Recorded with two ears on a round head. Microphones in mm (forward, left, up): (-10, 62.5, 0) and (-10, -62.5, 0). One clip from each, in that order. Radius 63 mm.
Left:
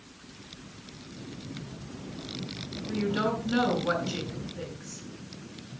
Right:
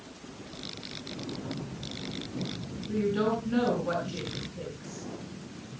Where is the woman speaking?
55° left (ahead or behind), 7 m.